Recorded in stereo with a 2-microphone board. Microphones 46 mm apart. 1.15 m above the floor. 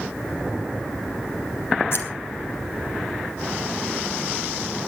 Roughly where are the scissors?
Left.